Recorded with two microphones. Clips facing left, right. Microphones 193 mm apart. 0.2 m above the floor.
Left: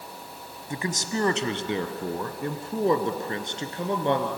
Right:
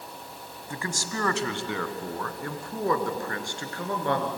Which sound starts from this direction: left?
A man speaking, at 0.7 s.